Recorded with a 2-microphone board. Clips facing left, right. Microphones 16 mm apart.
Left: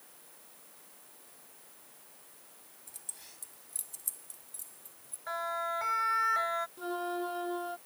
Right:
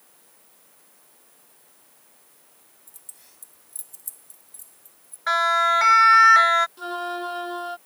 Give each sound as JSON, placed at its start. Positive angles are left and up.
{"t": 2.9, "sound": "keys jangling", "side_deg": 15}
{"t": 5.3, "sound": "a siren", "side_deg": -65}
{"t": 6.8, "sound": "a flute", "side_deg": -40}